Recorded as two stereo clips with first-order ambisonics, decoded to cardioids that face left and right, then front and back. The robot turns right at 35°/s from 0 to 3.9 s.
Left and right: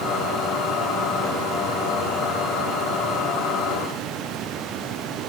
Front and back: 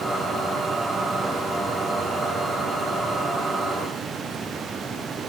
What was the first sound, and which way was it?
Only background noise.